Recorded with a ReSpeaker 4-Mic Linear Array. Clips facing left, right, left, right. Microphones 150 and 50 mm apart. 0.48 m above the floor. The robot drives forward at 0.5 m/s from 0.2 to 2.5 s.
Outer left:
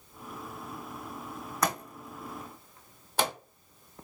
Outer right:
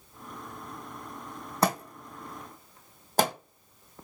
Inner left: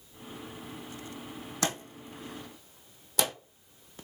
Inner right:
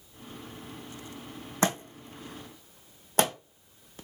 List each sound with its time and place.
1.6 s a thud: 30° right (ahead or behind), 1.2 m; by 3.4 s 45° right (ahead or behind), 0.9 m